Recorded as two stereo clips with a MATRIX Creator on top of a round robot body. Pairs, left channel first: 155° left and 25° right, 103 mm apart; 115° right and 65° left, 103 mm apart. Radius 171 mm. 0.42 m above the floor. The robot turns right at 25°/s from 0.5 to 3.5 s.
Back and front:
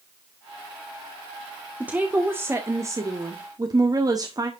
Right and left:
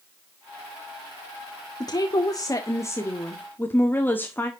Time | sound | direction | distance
1.8 | a woman speaking | 95° right | 1.8 m